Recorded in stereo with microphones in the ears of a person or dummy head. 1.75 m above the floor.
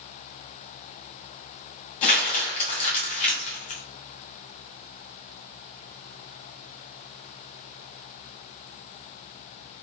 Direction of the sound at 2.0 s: 35° left (ahead or behind).